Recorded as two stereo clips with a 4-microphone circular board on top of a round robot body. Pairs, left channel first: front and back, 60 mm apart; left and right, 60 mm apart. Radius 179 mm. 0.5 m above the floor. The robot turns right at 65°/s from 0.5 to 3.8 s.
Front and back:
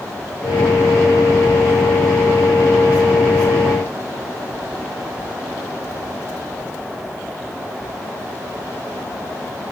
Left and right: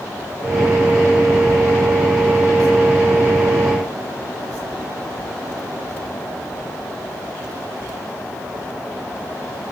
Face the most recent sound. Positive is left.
No sound to turn to.